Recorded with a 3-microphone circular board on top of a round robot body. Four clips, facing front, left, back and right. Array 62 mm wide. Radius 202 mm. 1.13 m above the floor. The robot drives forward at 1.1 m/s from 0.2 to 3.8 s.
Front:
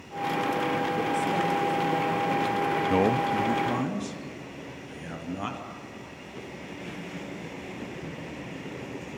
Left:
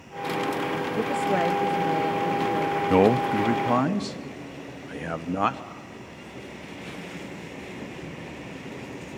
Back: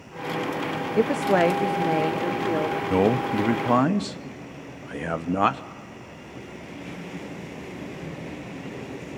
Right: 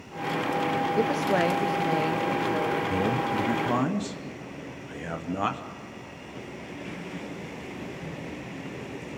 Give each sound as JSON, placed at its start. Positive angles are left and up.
{"t": 1.0, "sound": "a woman speaking", "azimuth_deg": 180, "distance_m": 0.7}
{"t": 2.9, "sound": "a man speaking", "azimuth_deg": 85, "distance_m": 0.6}